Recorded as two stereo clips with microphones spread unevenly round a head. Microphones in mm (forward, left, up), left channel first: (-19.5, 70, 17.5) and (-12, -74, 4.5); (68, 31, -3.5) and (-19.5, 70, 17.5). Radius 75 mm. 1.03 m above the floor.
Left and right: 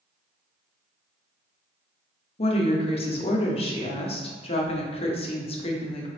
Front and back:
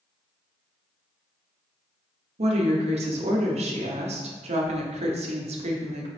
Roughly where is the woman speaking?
Behind left.